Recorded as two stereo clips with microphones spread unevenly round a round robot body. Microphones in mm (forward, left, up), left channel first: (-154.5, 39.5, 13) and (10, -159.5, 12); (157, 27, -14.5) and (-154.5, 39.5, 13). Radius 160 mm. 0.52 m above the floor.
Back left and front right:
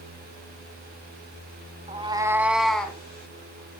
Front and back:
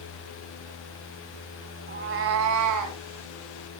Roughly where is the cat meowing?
Behind right.